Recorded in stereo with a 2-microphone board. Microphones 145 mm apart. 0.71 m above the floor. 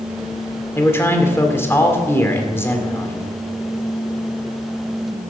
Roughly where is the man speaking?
Centre.